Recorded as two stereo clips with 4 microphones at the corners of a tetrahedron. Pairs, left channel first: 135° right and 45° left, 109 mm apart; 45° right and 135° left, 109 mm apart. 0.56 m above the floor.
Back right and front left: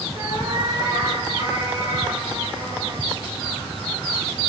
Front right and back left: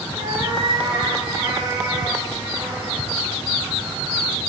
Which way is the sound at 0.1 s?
95° left.